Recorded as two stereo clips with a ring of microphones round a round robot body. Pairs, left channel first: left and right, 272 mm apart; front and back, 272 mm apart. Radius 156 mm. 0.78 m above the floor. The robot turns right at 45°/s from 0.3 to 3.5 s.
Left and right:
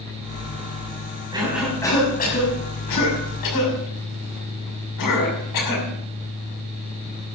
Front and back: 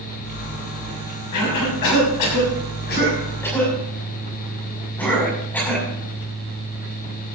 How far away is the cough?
About 6 m.